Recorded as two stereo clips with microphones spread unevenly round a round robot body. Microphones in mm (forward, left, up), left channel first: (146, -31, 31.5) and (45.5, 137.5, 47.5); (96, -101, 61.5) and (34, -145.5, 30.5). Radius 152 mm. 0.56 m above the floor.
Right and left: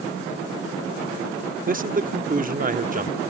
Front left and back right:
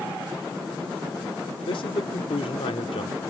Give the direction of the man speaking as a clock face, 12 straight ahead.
10 o'clock.